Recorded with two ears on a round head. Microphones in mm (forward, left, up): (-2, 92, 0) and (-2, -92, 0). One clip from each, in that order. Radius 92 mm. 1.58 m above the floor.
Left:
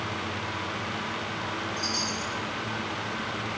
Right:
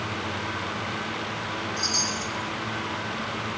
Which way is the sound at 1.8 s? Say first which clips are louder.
Right 5 dB; 15° right (ahead or behind).